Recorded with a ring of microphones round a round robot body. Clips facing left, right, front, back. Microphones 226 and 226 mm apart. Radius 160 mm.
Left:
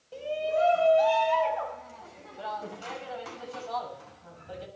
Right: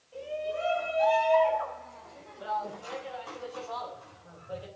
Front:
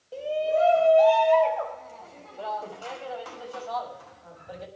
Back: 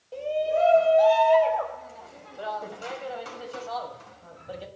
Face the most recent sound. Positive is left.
turn(degrees=125)